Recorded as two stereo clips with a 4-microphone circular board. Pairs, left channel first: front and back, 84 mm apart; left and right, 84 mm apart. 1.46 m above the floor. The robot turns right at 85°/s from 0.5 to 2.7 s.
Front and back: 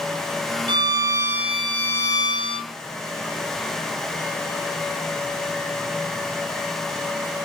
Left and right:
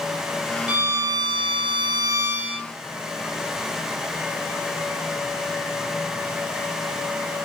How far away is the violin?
About 1.0 m.